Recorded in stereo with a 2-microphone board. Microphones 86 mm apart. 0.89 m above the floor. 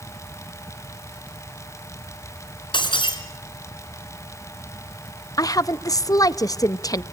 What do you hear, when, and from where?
2.7 s breaking glass: 70° left (ahead or behind), 3.5 m
5.4 s a woman speaking: 45° left (ahead or behind), 0.6 m